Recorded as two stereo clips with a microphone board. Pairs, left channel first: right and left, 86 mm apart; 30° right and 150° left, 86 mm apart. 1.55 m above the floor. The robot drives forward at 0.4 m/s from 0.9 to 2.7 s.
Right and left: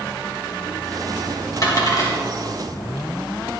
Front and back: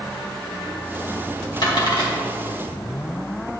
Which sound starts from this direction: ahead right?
A dropped coin, at 1.6 s.